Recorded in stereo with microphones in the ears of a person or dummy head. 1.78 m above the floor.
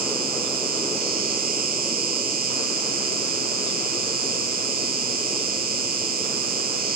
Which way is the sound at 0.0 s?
45° right (ahead or behind).